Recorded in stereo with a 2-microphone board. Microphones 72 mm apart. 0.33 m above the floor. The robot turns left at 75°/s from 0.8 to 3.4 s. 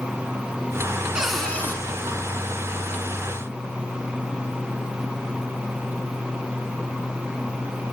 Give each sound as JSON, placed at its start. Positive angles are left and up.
{"t": 1.1, "sound": "a cupboard door", "azimuth_deg": -170, "distance_m": 4.0}